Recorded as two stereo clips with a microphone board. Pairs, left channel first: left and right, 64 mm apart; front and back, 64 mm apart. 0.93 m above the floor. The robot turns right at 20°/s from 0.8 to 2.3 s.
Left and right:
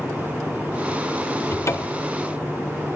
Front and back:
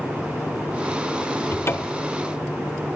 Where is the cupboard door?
45° left, 0.5 m; by 2.1 s 60° left, 0.5 m.